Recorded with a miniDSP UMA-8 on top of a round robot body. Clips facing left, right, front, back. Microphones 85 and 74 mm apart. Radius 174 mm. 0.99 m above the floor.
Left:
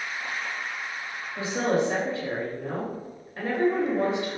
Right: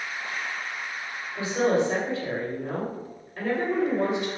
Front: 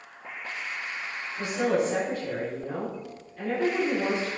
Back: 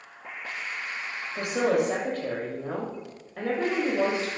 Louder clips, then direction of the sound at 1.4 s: Right 2 dB, back 1 dB; 155° left.